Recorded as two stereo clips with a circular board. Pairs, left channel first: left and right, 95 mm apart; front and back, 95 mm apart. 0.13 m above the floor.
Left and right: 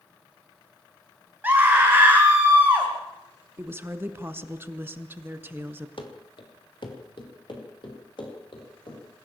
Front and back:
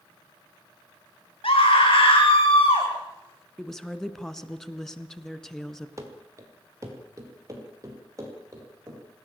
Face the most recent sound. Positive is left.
turn(degrees=125)